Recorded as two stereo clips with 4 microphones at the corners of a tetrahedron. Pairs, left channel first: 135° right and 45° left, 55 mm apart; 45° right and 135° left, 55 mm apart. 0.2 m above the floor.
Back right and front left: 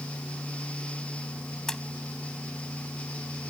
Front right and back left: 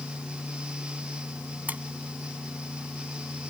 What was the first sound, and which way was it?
A splash, 155° left.